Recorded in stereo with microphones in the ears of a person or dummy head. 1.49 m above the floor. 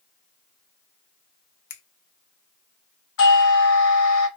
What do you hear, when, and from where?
1.7 s a finger snap: 65° left (ahead or behind), 0.8 m
3.2 s a doorbell: 85° left, 1.5 m